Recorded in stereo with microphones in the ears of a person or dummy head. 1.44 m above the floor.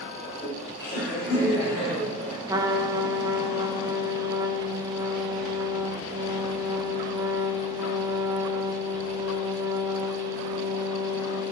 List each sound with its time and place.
0.2 s laughter: 5° right (ahead or behind), 5.5 m; by 2.4 s 15° right (ahead or behind), 6.5 m
2.5 s a trumpet: 10° right (ahead or behind), 0.8 m